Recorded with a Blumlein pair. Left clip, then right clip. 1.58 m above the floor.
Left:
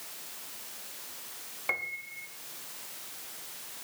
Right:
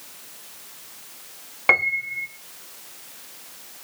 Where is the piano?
35° right, 0.7 m.